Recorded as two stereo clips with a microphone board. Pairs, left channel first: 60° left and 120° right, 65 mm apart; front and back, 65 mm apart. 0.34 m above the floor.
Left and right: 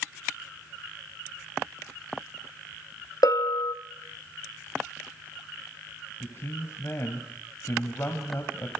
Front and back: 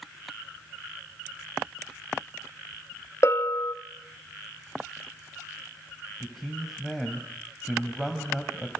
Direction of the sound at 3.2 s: 45° left.